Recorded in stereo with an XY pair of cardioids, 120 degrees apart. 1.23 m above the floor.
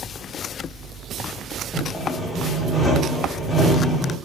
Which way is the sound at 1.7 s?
15° left.